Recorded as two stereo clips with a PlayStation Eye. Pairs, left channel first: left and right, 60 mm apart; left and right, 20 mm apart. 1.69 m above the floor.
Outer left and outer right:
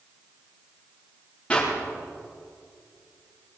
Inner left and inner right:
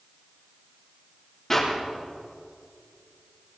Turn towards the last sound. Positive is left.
turn(degrees=20)  # may be behind; listen again after turning